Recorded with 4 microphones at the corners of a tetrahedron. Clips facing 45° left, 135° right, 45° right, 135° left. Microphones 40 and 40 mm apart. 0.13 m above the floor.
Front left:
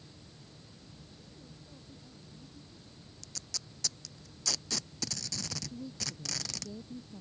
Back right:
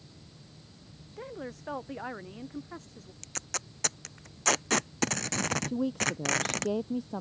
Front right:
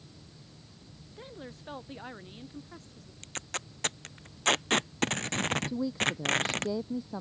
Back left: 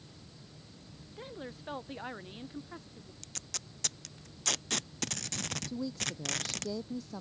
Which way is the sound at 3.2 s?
100° right.